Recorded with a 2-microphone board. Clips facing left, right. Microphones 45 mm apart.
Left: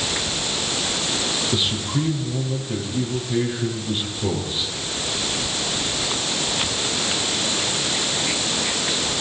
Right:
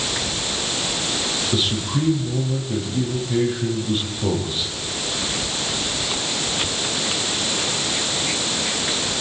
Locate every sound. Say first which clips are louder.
1.5 s a man speaking: right 3 dB; centre (ahead or behind), 4.5 m